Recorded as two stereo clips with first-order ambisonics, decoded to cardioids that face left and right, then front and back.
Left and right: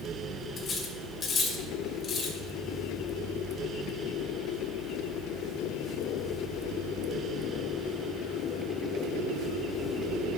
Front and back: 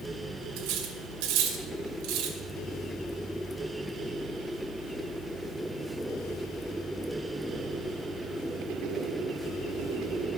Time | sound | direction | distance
0.6 | cutlery clinking | 155° left | 2 m